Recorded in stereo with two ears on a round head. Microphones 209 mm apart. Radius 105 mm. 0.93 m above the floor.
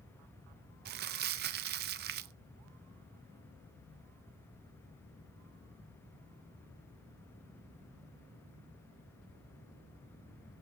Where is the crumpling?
45° right (ahead or behind), 0.6 m.